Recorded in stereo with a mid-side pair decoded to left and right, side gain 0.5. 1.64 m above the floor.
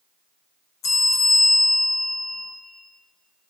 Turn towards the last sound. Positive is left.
turn(degrees=65)